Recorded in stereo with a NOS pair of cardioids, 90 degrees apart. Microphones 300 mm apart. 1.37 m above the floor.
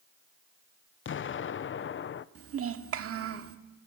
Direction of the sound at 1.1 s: 45° left.